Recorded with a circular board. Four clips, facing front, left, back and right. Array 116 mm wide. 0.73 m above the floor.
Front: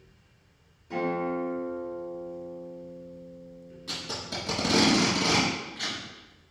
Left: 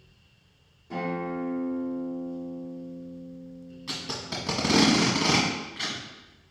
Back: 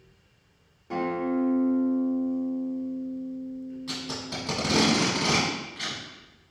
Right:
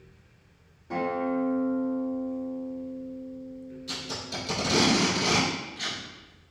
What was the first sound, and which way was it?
A guitar, 160° right.